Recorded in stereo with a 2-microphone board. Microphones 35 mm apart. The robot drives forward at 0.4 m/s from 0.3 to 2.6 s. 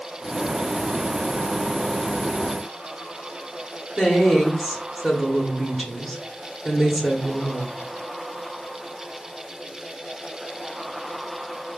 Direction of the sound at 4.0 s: Centre (ahead or behind).